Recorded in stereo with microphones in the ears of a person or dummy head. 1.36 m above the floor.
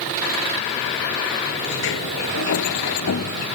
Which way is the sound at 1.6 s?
75° left (ahead or behind).